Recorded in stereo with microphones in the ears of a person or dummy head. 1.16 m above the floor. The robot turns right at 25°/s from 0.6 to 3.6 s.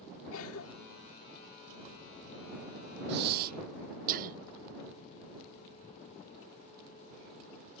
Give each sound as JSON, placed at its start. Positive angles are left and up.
{"t": 0.3, "sound": "a cough", "side_deg": 80}
{"t": 3.1, "sound": "breathing", "side_deg": -60}